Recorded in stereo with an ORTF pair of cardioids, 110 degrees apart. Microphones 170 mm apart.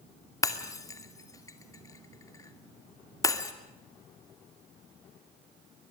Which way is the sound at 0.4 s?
20° left.